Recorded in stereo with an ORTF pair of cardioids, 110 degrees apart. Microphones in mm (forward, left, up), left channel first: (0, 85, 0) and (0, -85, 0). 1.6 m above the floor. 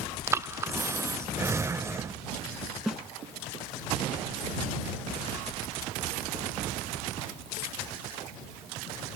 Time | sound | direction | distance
0.3 | breathing | 15° right | ?
2.9 | a snare drum | 5° right | ?